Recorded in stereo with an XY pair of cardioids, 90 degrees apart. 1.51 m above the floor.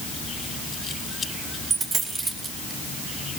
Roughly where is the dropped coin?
Ahead right.